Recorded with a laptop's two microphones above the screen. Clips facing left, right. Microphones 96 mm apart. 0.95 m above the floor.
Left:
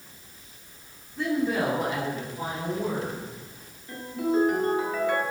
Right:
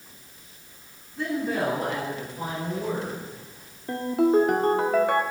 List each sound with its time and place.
1.2 s a woman speaking: centre (ahead or behind), 3 m; by 3.3 s 25° left (ahead or behind), 5 m
3.9 s a ringtone: 65° right (ahead or behind), 1.9 m